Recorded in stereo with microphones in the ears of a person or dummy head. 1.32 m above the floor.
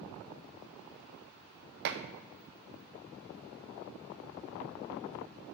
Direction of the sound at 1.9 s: 55° right (ahead or behind).